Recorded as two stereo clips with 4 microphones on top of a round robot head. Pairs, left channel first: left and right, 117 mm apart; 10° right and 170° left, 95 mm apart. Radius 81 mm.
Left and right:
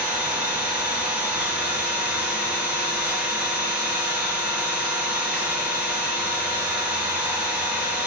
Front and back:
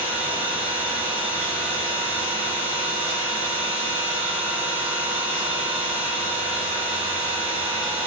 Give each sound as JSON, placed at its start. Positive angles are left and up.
{"t": 0.0, "sound": "an engine running", "azimuth_deg": -170, "distance_m": 2.5}